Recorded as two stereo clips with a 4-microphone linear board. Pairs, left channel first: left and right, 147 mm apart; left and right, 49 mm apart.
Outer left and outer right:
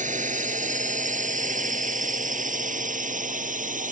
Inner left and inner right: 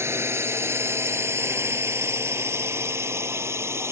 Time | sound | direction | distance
0.0 | a drone | 60° right (ahead or behind) | ?